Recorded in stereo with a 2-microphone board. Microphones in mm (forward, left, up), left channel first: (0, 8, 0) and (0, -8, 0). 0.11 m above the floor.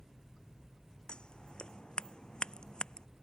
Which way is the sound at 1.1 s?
65° left (ahead or behind).